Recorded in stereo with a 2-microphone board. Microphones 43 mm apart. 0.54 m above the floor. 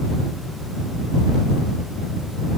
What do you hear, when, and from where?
Only background noise.